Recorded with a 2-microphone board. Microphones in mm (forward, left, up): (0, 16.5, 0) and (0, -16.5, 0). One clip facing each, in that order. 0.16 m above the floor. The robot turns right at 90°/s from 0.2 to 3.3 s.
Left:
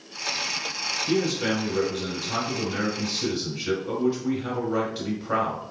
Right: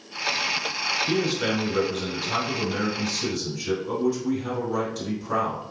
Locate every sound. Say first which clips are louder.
1.1 s a man speaking: left 4 dB; 160° right, 1.9 m; by 5.6 s 40° left, 1.9 m